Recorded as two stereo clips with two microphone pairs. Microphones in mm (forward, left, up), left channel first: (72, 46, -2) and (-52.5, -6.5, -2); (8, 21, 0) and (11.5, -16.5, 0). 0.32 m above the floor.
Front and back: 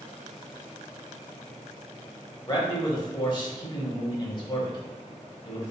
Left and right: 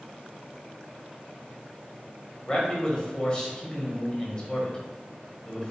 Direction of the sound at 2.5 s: 50° left.